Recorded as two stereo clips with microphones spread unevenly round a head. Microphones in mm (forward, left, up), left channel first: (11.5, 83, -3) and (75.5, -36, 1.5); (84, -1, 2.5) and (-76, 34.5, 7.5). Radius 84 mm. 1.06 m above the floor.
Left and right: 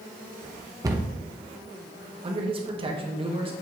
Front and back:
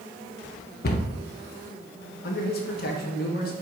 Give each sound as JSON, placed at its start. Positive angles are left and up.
{"t": 0.8, "sound": "a cupboard door", "azimuth_deg": 5, "distance_m": 0.9}
{"t": 2.2, "sound": "a man speaking", "azimuth_deg": -15, "distance_m": 1.4}